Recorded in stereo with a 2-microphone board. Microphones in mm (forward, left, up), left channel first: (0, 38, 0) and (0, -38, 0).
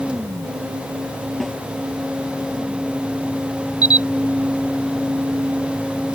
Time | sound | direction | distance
1.4 | a snare drum | centre (ahead or behind) | ?
3.8 | a camera shutter | 55° left (ahead or behind) | ?